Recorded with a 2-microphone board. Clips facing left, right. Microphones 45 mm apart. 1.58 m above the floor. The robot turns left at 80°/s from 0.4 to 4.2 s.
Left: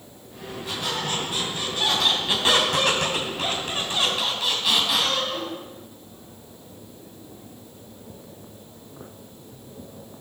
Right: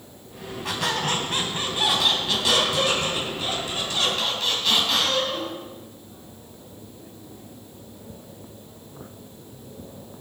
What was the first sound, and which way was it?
A squeak, 65° right.